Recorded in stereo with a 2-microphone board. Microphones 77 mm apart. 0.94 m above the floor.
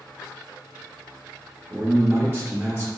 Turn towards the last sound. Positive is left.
turn(degrees=-30)  # may be behind; listen again after turning